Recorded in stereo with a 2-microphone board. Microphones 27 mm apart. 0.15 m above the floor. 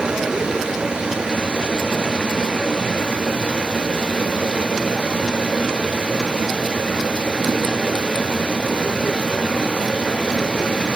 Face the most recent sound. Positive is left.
turn(degrees=-50)  # may be behind; listen again after turning